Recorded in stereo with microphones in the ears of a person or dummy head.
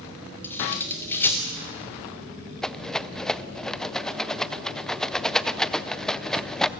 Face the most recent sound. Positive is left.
turn(degrees=5)  # may be behind; listen again after turning